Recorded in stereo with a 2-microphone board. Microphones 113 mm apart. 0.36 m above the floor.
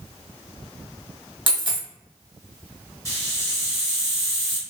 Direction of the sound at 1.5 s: 45° left (ahead or behind).